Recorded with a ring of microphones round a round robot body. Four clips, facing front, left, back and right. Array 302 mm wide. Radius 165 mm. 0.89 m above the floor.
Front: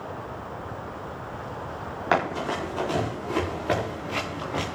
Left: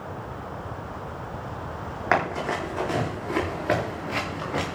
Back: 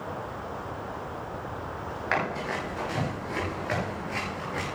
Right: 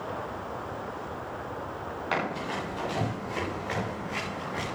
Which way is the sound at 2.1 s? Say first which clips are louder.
Left 7 dB, front 5 dB; 40° left.